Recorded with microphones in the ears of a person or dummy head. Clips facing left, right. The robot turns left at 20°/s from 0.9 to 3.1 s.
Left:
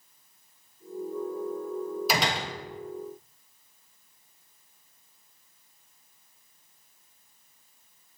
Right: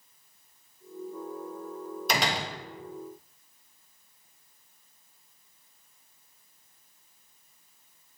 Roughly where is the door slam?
Centre.